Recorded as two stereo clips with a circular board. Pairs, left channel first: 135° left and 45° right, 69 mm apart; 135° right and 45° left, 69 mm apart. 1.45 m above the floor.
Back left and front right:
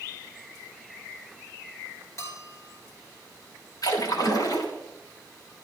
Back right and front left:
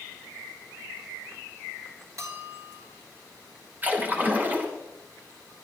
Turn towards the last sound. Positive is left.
turn(degrees=110)